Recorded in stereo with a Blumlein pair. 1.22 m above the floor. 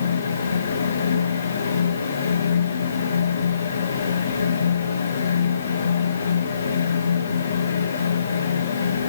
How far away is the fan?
About 1.0 m.